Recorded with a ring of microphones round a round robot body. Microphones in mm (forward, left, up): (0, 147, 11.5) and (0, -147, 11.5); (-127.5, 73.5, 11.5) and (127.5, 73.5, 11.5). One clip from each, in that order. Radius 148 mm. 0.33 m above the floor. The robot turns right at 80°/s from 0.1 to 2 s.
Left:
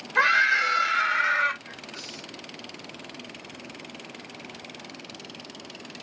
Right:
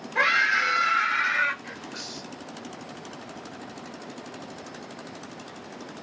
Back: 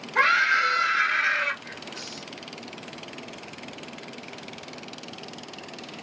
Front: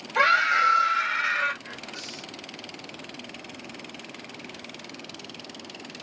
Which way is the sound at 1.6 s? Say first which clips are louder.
Right 2 dB, even; 85° right.